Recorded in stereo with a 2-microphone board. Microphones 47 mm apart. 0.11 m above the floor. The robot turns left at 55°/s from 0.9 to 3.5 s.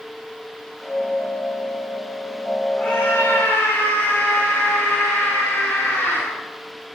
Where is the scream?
155° left, 10 m; by 6.2 s 115° left, 10 m.